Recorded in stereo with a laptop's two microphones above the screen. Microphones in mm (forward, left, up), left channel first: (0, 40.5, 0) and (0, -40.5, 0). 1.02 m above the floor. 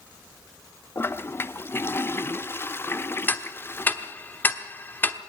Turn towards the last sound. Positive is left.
turn(degrees=20)  # may be behind; listen again after turning